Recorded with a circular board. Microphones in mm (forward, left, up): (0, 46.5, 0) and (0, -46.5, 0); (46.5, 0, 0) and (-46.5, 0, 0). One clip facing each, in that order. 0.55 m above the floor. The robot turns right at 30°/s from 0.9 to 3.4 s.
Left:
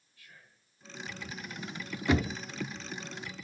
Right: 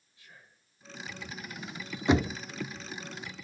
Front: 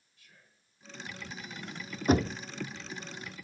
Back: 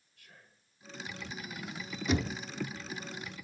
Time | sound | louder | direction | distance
0.2 | whispering | right 1 dB, back 4 dB | 155° right | 1.7 m
2.1 | knocking | right 3 dB, front 6 dB | 30° right | 0.6 m